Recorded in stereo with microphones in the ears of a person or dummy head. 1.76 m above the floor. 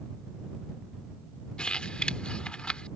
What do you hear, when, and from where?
1.6 s crumpling: 5° left (ahead or behind)